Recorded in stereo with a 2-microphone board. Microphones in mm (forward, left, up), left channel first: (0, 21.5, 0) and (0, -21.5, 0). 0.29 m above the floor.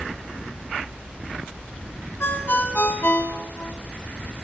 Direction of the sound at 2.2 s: 60° left (ahead or behind).